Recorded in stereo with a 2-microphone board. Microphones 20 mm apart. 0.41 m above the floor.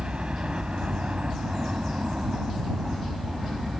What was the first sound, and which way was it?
A helicopter, 60° right (ahead or behind).